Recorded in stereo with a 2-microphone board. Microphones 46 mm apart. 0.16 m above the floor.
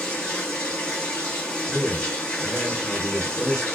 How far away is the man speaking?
About 2 m.